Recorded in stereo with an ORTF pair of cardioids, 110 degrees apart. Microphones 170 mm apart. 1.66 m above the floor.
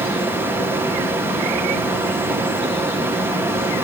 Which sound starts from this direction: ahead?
A fan, at 0.0 s.